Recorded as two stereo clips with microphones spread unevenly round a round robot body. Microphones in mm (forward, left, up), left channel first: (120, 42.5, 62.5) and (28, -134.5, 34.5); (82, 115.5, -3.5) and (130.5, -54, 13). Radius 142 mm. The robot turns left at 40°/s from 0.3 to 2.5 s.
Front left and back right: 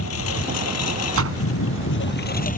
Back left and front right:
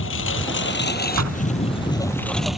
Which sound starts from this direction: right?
A door slam, at 1.1 s.